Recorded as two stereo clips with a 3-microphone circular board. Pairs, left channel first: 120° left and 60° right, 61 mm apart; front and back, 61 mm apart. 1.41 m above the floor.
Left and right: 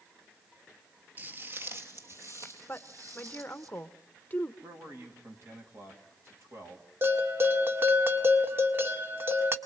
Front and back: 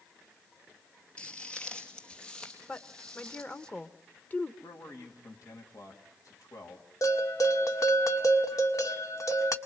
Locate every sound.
1.2 s footsteps: 55° right, 1.5 m; by 3.7 s 75° right, 3.5 m
2.7 s a woman speaking: 55° left, 1.1 m
4.6 s a man speaking: 15° right, 3 m
7.0 s a bell: 10° right, 1.7 m